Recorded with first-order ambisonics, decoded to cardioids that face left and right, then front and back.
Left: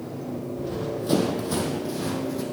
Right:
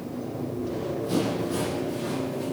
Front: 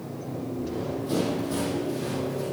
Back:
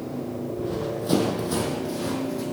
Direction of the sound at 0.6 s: 145° left.